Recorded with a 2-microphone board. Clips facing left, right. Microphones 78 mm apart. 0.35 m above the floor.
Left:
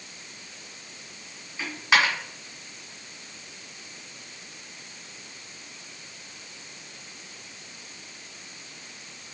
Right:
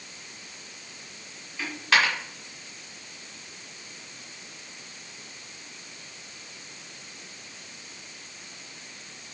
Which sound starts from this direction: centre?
A dropped coin, at 1.6 s.